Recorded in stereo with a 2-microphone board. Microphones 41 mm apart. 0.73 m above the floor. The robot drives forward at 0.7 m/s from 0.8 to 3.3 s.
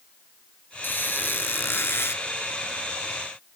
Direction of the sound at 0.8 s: 50° left (ahead or behind).